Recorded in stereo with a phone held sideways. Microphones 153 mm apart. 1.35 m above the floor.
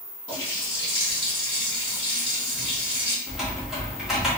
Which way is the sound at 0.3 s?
35° right (ahead or behind).